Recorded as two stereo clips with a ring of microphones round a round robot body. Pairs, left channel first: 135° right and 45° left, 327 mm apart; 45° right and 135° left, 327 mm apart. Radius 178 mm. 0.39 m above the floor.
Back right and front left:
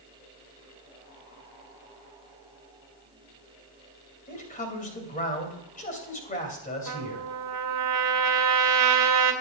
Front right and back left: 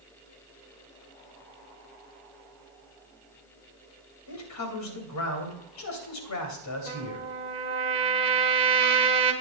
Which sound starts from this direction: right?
A man speaking, at 4.3 s.